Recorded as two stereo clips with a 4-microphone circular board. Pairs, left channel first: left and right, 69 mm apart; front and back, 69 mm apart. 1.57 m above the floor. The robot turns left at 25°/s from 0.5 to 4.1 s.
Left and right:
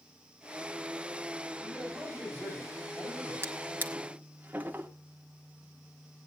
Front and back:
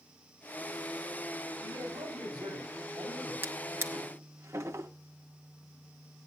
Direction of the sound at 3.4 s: 130° right.